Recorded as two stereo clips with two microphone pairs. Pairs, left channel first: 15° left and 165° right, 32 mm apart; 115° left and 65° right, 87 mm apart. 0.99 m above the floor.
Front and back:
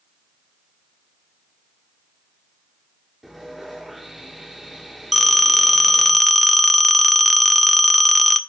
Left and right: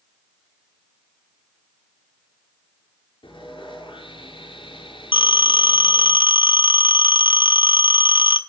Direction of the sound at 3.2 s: 110° left.